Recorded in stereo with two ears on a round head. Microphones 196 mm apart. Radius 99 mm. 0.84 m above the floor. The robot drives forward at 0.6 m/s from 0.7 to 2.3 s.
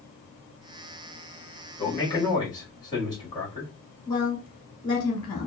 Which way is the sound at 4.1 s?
20° left (ahead or behind).